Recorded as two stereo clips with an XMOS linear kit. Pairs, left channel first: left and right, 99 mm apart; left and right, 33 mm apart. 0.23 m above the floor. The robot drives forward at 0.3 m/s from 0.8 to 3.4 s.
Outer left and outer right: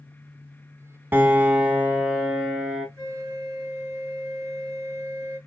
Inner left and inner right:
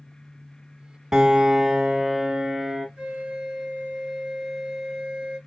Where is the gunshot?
I don't hear a gunshot.